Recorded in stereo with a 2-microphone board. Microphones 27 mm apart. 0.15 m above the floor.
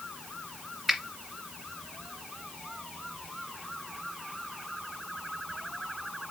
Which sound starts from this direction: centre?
A finger snap, at 0.9 s.